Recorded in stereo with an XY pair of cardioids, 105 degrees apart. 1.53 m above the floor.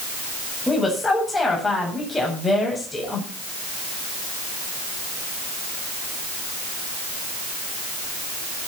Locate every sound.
0.7 s a woman speaking: 20° left, 8 m